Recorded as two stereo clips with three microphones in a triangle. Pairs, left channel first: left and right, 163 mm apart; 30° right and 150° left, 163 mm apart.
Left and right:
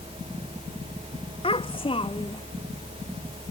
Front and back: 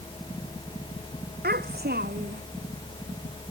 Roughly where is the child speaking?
Behind left.